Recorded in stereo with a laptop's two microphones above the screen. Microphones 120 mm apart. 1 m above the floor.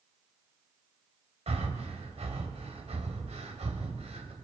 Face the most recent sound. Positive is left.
turn(degrees=-60)  # may be behind; listen again after turning